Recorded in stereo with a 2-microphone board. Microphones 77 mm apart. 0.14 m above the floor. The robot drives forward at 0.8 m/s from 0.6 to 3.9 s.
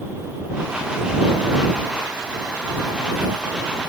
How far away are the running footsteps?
I don't hear running footsteps.